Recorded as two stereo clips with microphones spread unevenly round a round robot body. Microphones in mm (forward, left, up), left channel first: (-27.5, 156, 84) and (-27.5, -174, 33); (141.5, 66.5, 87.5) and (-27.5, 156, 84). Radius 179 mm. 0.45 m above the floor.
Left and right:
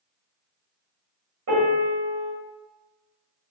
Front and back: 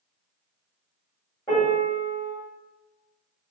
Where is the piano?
105° right, 1.8 m.